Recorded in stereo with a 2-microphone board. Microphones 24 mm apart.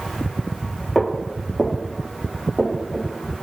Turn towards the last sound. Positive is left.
turn(degrees=20)  # may be behind; listen again after turning